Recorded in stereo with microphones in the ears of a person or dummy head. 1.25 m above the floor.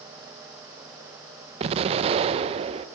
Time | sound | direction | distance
1.6 | an explosion | 30° right (ahead or behind) | 0.9 m